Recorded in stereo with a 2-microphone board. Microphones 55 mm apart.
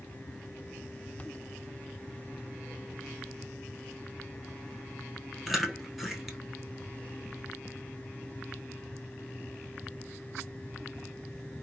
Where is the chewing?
Centre (ahead or behind), 0.8 m.